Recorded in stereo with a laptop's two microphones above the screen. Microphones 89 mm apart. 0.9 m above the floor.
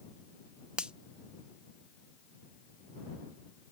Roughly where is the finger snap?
Centre.